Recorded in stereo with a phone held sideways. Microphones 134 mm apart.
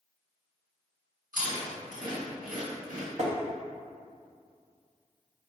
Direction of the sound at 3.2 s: 55° right (ahead or behind).